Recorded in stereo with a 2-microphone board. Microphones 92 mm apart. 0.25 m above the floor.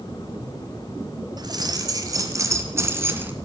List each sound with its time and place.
1.4 s keys jangling: 45° right (ahead or behind), 2.5 m; by 3.3 s 20° right (ahead or behind), 1.9 m